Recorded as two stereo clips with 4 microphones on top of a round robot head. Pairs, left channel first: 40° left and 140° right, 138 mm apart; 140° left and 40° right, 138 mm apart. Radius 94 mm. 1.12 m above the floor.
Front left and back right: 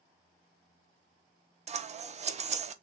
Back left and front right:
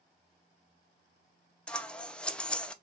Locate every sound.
1.7 s scissors: 140° right, 0.6 m